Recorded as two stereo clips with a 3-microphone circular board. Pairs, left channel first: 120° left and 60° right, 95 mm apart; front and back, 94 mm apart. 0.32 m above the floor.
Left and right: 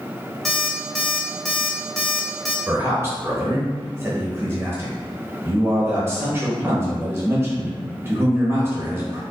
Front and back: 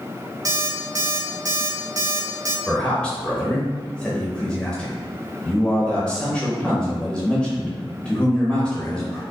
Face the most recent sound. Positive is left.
turn(degrees=-65)